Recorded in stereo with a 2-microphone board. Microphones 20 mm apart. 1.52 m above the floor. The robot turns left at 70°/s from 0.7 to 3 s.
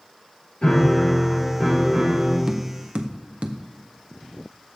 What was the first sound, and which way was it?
A piano, 60° left.